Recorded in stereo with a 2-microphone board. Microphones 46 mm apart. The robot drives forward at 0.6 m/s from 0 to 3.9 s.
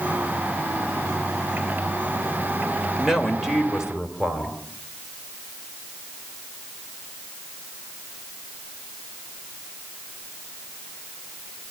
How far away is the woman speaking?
About 2.5 m.